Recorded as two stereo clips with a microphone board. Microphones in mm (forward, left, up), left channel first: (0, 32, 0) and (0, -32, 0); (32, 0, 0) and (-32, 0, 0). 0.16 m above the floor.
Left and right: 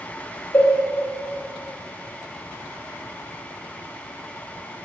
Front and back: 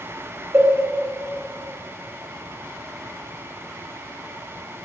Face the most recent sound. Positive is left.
turn(degrees=130)